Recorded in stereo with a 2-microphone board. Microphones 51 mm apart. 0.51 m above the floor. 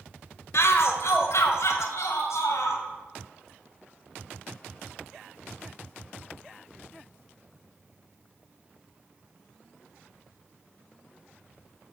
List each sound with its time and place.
0.5 s a shout: 65° left (ahead or behind), 1.6 m; by 2.8 s 75° left (ahead or behind), 3 m